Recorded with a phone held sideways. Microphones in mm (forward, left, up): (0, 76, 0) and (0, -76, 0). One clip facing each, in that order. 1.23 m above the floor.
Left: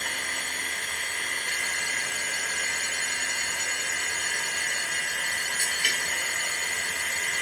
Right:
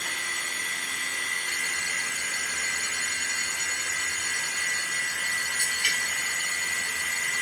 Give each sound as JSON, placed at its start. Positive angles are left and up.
{"t": 0.0, "sound": "a machine running", "side_deg": 55, "distance_m": 1.1}